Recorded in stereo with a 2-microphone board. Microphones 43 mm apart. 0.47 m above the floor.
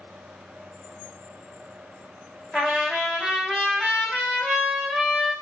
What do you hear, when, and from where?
2.5 s a trumpet: 15° right (ahead or behind), 1.7 m